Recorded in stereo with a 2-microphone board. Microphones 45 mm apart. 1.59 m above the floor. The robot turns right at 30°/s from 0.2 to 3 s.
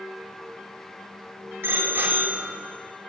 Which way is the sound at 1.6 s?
70° right (ahead or behind).